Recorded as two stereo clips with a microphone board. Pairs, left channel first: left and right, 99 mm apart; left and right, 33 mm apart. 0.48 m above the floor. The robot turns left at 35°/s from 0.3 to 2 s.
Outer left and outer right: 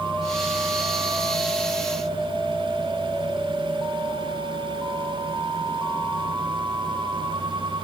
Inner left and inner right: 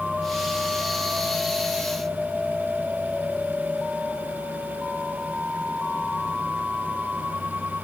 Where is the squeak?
No squeak in this recording.